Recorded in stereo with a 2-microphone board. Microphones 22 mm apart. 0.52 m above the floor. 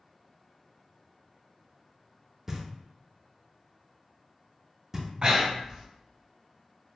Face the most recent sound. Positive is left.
turn(degrees=-40)  # may be behind; listen again after turning